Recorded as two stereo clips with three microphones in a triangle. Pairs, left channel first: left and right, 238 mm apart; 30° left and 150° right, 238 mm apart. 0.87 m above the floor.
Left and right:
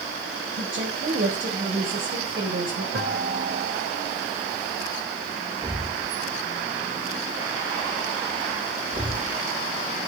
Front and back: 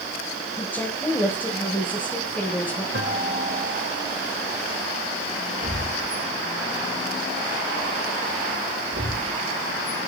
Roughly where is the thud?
Behind right.